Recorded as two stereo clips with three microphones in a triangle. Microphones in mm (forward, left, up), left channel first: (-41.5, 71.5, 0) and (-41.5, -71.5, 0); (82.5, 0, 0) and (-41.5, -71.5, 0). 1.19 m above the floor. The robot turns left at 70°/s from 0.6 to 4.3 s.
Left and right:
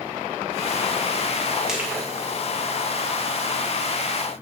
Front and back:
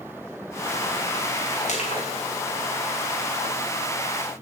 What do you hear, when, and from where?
1.7 s crushing: 5° right, 2 m; by 2.0 s 30° right, 2 m